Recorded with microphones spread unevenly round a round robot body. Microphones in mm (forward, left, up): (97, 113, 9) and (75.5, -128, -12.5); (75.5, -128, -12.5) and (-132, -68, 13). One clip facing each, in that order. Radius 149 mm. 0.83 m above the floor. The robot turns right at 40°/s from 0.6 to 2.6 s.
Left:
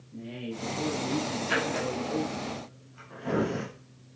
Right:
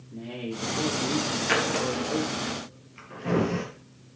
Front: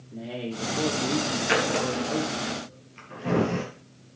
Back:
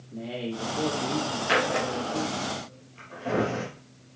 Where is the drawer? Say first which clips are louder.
Right 4 dB, front 1 dB; 85° right, 4 m; by 3.6 s 40° right, 4 m.